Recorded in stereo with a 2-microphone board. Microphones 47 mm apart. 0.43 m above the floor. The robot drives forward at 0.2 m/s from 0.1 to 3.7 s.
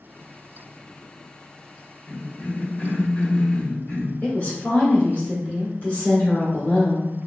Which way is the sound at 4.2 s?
30° left (ahead or behind).